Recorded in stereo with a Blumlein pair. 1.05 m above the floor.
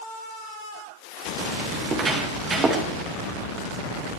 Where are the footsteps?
25° right, 7.5 m; by 2.9 s 20° right, 9 m.